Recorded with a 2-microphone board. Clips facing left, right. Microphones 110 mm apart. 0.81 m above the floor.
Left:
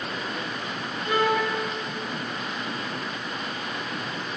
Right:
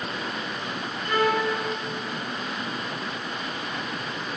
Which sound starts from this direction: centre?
A violin, at 1.1 s.